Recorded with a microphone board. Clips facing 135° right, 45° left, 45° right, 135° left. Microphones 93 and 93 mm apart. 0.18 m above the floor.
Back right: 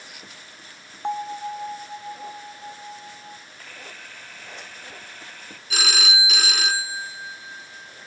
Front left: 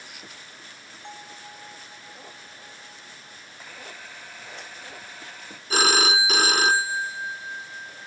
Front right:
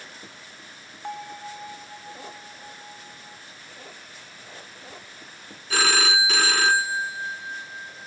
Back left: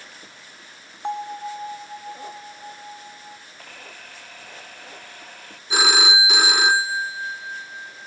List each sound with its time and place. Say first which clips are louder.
1.0 s a bell: back right 16 dB, back left 7 dB; 165° right
3.6 s a camera shutter: even, back left 2 dB; 125° left
5.7 s a phone ringing: front left 6 dB, back left 2 dB; 65° left